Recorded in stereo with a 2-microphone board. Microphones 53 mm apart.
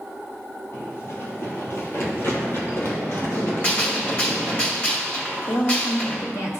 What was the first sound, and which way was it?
Running footsteps, 50° left (ahead or behind).